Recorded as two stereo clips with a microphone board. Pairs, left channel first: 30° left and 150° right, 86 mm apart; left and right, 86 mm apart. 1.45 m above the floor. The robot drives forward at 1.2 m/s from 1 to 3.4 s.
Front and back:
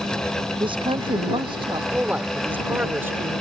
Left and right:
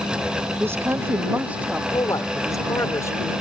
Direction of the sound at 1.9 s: 135° left.